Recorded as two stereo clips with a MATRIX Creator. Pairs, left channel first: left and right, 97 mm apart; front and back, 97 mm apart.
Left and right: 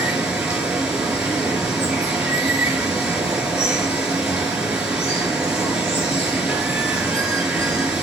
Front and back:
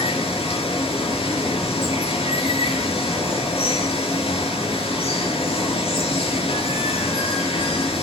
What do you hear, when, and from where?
0.0 s running water: 5° right, 3.5 m